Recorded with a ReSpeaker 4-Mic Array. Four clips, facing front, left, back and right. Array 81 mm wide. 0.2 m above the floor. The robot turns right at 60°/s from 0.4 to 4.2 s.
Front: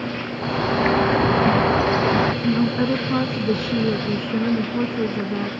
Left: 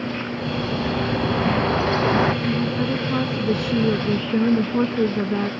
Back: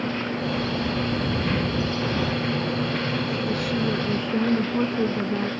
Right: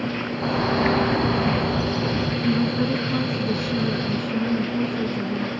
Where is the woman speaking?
20° right; by 5.5 s 85° left.